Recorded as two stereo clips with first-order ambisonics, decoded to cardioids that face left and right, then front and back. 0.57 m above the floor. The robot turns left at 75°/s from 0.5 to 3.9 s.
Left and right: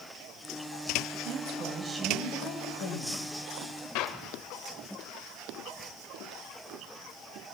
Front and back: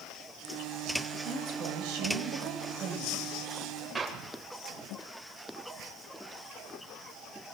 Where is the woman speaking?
115° right, 3.5 m; by 3.3 s 90° left, 3.5 m.